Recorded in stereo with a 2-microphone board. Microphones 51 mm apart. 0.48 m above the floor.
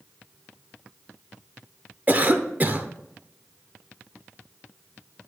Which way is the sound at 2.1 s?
35° right (ahead or behind).